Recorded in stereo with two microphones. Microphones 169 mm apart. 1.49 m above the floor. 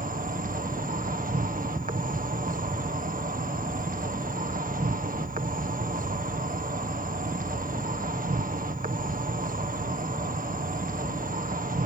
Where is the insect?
55° right (ahead or behind).